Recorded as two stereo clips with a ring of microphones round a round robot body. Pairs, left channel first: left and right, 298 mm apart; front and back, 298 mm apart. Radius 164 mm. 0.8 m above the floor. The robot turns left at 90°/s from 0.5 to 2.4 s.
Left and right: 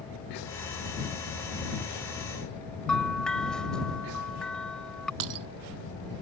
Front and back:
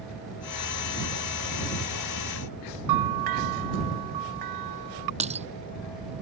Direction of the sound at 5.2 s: 110° right.